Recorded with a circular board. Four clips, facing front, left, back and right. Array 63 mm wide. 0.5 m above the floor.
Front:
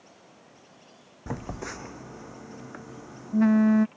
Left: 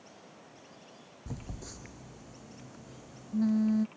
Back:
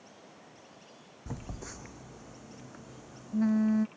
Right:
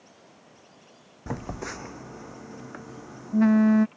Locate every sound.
1.3 s a phone buzzing: 55° right